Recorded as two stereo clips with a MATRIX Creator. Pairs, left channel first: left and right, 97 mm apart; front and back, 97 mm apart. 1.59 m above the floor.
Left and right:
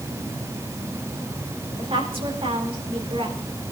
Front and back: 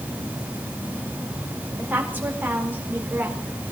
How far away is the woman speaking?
About 4.5 m.